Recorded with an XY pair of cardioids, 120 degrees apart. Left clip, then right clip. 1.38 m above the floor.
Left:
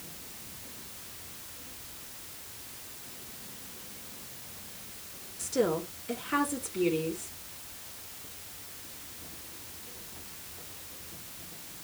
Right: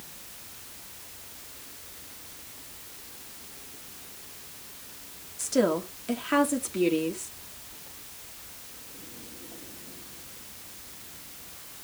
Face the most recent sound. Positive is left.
turn(degrees=-60)